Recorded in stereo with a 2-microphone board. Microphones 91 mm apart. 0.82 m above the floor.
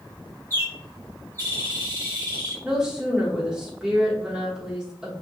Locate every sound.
0.5 s a bird: 30° left (ahead or behind), 1.4 m
2.6 s a woman speaking: 5° right (ahead or behind), 1.0 m